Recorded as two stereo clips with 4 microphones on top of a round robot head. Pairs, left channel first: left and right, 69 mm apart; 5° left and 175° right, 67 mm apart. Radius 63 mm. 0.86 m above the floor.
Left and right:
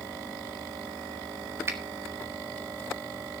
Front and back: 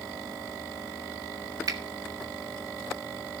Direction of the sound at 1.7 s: 145° right.